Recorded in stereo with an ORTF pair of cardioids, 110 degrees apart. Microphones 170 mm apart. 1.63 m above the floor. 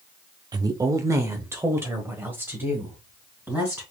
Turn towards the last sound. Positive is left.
turn(degrees=-10)